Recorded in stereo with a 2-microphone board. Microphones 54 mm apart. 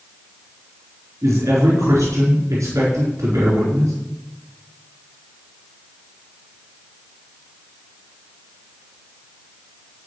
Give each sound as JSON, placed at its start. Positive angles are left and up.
{"t": 1.2, "sound": "a man speaking", "side_deg": -70, "distance_m": 4.5}